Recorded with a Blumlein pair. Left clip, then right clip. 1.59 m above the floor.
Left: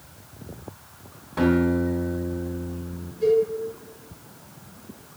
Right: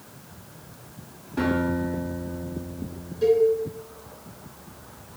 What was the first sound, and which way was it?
A guitar, 15° left.